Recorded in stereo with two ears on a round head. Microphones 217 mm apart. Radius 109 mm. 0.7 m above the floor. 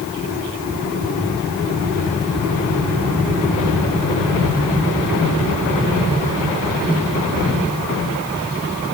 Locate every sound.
Only background noise.